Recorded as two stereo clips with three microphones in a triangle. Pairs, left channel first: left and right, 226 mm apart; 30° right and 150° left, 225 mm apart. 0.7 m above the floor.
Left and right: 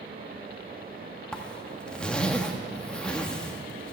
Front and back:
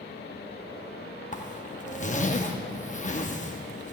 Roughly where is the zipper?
Ahead.